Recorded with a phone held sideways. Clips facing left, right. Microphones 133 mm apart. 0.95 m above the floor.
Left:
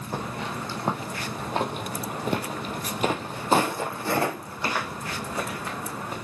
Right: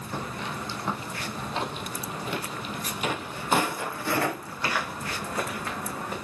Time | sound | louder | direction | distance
0.1 | footsteps | left 2 dB | 40° left (ahead or behind) | 2 m